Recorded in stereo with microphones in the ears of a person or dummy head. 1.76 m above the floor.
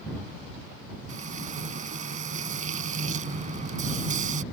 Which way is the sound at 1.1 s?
40° right (ahead or behind).